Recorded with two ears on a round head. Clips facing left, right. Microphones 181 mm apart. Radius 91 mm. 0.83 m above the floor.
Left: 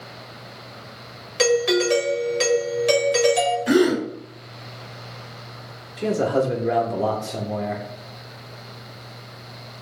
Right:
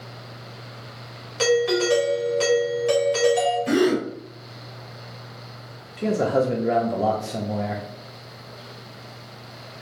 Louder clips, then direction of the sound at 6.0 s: Even; centre (ahead or behind).